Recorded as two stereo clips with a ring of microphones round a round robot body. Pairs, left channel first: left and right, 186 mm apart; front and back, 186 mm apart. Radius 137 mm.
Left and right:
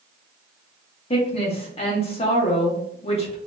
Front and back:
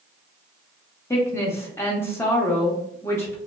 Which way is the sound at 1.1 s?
70° left.